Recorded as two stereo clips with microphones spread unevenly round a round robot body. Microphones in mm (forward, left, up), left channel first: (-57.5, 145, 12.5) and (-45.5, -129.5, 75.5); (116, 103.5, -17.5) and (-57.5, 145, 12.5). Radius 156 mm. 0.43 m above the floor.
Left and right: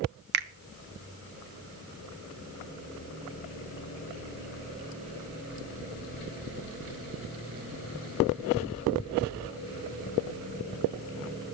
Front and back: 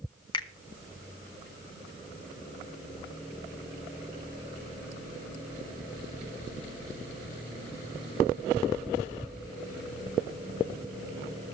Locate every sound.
0.3 s a finger snap: 40° right, 0.7 m